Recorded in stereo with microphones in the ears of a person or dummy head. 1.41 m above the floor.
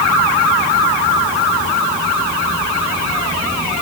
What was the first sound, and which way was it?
Only background noise.